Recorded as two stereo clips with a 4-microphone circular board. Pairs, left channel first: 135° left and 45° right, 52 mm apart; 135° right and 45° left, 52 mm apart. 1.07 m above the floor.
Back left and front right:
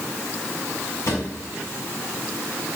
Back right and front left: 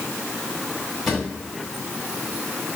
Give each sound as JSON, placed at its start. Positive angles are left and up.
{"t": 1.1, "sound": "a drawer", "azimuth_deg": 140, "distance_m": 3.0}